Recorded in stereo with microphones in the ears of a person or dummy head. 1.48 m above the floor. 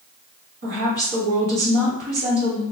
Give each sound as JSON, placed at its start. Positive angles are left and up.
{"t": 0.6, "sound": "a woman speaking", "side_deg": -50, "distance_m": 0.9}